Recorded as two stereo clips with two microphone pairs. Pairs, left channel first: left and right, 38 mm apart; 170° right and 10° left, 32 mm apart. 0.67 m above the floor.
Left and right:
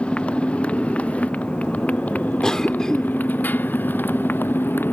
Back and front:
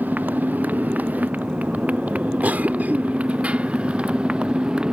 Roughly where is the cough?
Ahead.